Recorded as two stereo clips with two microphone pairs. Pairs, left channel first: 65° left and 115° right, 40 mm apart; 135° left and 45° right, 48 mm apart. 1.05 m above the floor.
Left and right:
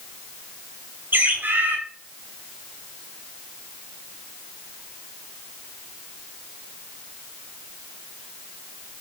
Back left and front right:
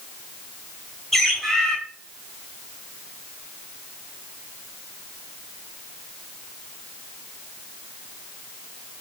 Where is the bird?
140° right, 5.5 m.